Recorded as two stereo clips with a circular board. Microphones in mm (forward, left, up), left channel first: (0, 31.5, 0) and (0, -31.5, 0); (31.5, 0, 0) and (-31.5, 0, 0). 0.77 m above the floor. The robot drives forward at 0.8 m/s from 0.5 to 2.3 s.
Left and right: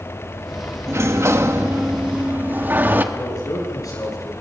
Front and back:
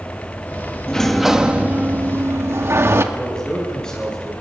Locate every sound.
0.9 s a sliding door: 70° right, 1.0 m; by 3.0 s 140° right, 1.3 m
3.1 s a man speaking: 80° left, 9.5 m